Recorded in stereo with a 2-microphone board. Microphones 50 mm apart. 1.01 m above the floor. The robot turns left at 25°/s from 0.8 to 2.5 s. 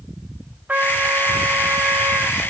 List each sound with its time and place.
0.7 s a trumpet: 35° right, 0.6 m; by 2.4 s 75° right, 0.6 m